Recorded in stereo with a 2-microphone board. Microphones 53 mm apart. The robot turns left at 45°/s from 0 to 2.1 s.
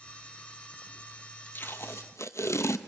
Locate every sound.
1.6 s tape being pulled: 40° left (ahead or behind), 0.7 m; by 2.8 s 60° left (ahead or behind), 0.7 m